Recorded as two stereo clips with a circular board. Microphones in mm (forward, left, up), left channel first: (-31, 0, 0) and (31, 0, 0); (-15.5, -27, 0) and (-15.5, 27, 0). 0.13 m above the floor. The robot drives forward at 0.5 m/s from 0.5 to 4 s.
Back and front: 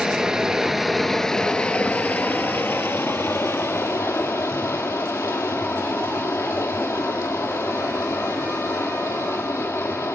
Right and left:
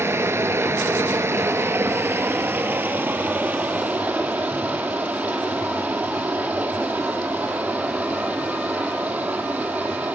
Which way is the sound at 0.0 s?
80° left.